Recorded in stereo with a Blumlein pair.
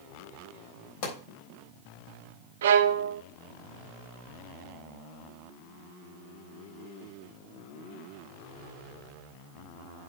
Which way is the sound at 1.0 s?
50° left.